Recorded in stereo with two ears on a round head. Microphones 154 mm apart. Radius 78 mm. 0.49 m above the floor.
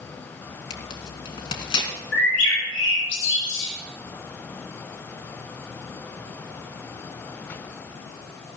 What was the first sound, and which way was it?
Tearing paper, 25° left (ahead or behind).